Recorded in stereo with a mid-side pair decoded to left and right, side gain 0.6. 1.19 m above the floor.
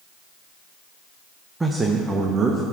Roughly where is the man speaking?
Ahead.